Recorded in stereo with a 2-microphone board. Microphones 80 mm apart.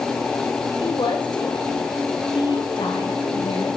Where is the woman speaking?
75° left (ahead or behind), 4 m.